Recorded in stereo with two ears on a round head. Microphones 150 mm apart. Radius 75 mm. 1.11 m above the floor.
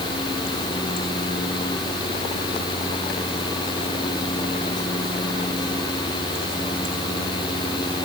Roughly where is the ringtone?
No ringtone in this recording.